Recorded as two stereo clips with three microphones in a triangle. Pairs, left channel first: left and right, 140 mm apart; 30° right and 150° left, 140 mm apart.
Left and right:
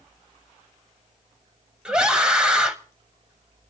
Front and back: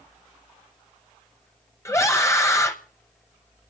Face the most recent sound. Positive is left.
turn(degrees=-15)